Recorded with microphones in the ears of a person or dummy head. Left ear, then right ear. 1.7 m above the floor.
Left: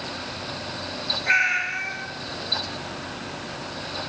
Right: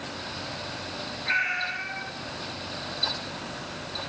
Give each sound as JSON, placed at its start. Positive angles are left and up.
{"t": 1.3, "sound": "a cat meowing", "side_deg": 20, "distance_m": 5.0}